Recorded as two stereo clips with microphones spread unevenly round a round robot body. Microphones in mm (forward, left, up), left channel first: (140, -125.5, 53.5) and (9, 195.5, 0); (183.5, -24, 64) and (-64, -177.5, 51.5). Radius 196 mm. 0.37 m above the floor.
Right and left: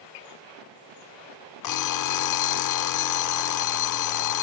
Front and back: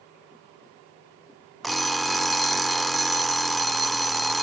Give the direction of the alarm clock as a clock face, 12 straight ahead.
2 o'clock.